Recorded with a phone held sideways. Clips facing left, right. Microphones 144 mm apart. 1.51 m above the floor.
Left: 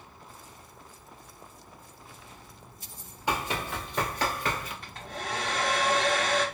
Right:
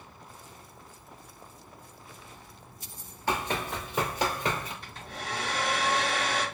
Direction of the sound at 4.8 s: 50° left (ahead or behind).